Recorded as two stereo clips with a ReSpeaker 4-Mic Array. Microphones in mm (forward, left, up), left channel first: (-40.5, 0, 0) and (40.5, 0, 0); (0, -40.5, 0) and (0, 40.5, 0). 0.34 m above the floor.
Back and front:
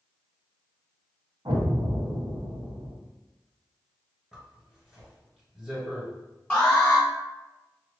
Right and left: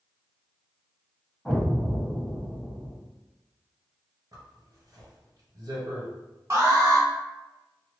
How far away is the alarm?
About 0.9 m.